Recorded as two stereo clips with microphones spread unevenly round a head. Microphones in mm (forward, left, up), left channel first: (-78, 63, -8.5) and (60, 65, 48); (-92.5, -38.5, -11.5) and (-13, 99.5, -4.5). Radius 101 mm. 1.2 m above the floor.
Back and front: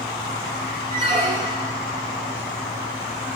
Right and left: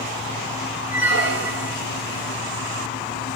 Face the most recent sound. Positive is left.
turn(degrees=50)